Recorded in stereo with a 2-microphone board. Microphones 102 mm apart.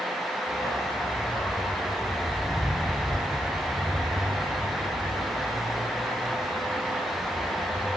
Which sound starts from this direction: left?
A dog barking, at 0.5 s.